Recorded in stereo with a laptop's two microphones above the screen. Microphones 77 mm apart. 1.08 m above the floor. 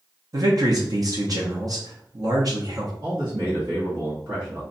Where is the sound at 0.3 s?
50° right (ahead or behind), 0.9 m.